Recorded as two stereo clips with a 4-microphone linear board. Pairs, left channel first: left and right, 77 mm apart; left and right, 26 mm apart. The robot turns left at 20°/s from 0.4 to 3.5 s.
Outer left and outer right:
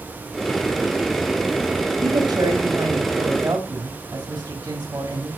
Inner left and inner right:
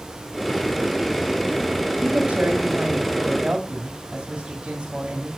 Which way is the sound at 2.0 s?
55° right (ahead or behind).